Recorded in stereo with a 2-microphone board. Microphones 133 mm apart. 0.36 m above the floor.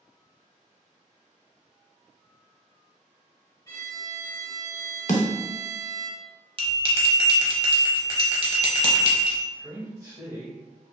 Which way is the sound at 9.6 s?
25° right (ahead or behind).